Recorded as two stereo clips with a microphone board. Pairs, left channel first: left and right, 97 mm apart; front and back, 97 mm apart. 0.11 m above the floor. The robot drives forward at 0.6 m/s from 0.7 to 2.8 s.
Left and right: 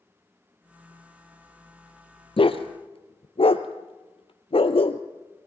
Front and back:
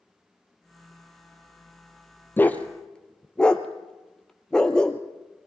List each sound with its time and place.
2.4 s a dog barking: 70° left, 1.3 m; by 5.0 s 80° left, 1.2 m